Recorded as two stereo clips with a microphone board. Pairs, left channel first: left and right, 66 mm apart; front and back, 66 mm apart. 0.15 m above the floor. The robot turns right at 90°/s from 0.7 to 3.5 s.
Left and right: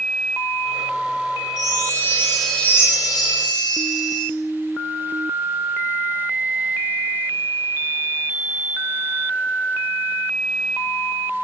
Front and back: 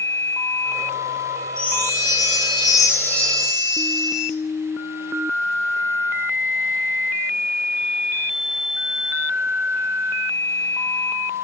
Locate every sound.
1.6 s a chime: 75° right, 5.5 m; by 4.3 s 100° left, 5.5 m